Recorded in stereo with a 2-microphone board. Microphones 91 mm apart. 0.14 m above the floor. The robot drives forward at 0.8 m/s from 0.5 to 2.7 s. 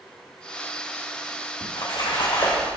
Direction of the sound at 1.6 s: 85° left.